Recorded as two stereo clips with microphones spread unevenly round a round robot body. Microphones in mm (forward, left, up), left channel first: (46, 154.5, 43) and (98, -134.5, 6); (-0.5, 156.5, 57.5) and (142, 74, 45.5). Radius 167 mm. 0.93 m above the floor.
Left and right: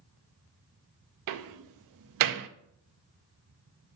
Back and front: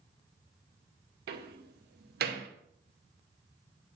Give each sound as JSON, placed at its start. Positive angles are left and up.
{"t": 1.3, "sound": "a door slam", "azimuth_deg": -65, "distance_m": 0.7}